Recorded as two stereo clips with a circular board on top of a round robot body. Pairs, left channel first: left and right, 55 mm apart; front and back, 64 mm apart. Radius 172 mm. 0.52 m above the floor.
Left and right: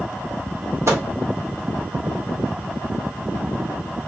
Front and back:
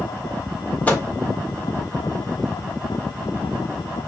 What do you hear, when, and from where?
0.9 s a microwave: 65° right, 1.5 m